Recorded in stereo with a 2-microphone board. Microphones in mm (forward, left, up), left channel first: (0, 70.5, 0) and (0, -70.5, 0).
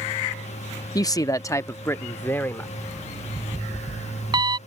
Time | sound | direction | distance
0.9 | a man speaking | 25° left (ahead or behind) | ?
2.8 | an alarm clock | 30° right (ahead or behind) | ?